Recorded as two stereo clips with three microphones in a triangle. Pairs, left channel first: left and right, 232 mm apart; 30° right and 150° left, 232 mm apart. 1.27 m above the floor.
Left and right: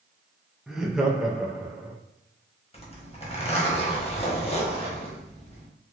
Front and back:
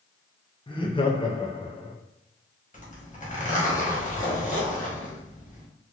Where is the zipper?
25° left, 1.1 m.